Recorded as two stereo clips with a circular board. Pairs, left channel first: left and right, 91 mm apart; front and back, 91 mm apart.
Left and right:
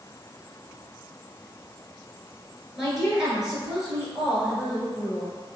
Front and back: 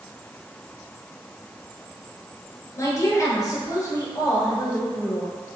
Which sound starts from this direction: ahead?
A woman speaking, at 2.8 s.